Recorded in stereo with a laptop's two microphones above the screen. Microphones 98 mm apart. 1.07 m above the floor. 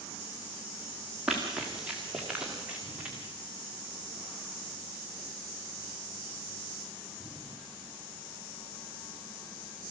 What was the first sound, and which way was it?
Running footsteps, 5° right (ahead or behind).